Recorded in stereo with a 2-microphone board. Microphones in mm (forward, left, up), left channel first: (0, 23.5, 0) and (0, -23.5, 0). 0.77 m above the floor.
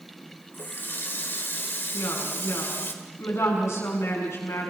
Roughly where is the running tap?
Left.